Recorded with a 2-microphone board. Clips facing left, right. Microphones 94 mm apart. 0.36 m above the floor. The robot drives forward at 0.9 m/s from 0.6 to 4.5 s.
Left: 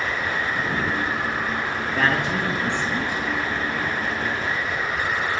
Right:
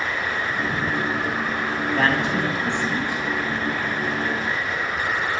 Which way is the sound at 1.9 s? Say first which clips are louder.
Right 1 dB; 25° right (ahead or behind).